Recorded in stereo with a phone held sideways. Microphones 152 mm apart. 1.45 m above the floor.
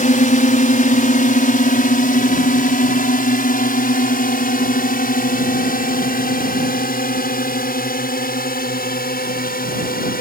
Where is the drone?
60° left (ahead or behind); by 10.2 s 80° left.